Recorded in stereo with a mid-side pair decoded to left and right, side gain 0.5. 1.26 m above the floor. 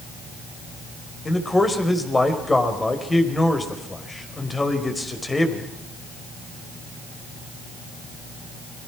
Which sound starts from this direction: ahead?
A man speaking, at 1.2 s.